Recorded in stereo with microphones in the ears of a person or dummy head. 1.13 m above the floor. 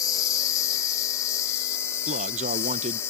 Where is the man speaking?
40° right (ahead or behind).